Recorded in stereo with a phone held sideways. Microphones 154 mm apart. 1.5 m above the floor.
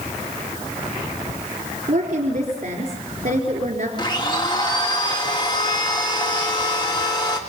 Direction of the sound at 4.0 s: 30° left (ahead or behind).